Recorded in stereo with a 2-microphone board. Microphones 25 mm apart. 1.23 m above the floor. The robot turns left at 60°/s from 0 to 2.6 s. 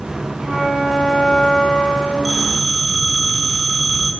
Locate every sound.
0.4 s a flute: 145° right, 10 m; by 2.1 s 110° left, 10 m
2.2 s a phone ringing: centre (ahead or behind), 6.5 m; by 4.1 s 20° left (ahead or behind), 6.5 m